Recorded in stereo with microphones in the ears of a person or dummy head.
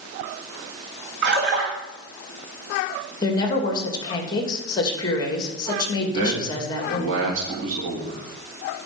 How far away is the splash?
About 2.5 m.